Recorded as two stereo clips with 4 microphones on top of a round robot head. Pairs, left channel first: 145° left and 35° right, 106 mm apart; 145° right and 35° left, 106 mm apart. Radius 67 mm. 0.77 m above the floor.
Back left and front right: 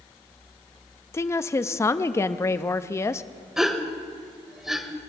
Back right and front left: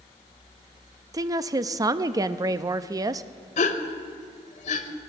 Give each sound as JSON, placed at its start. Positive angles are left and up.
{"t": 1.1, "sound": "a woman speaking", "azimuth_deg": 85, "distance_m": 0.6}
{"t": 3.6, "sound": "a gasp", "azimuth_deg": -120, "distance_m": 0.9}